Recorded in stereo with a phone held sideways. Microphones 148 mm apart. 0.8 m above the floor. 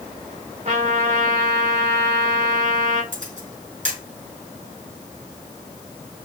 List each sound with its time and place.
0.7 s a trumpet: 50° right (ahead or behind), 3 m
3.1 s a camera shutter: 55° right (ahead or behind), 4.5 m